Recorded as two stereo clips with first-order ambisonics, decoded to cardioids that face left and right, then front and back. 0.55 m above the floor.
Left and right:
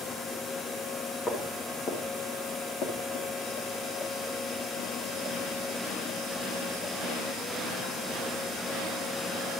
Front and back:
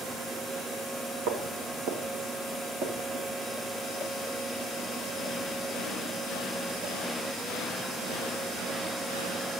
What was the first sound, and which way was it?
Footsteps, 160° left.